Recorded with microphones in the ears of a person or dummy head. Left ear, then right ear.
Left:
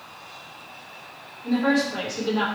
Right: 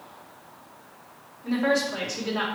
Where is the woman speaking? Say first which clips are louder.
Left 1 dB; 25° right (ahead or behind), 1.4 m.